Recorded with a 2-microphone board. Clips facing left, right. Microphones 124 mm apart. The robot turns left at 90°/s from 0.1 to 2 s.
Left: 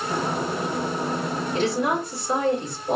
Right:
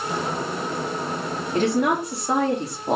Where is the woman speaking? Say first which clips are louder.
Right 4 dB; 45° right, 1.5 m; by 3.0 s 85° right, 1.5 m.